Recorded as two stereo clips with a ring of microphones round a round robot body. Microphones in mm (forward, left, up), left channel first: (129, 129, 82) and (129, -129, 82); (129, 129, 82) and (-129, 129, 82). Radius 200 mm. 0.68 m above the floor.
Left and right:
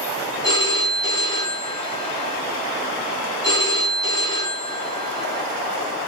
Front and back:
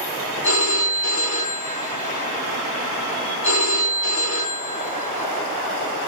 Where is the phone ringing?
15° left, 1.8 m.